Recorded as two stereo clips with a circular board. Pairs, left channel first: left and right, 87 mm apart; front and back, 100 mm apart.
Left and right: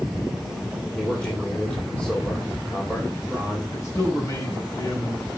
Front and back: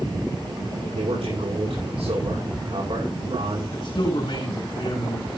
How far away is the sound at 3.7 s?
About 5 m.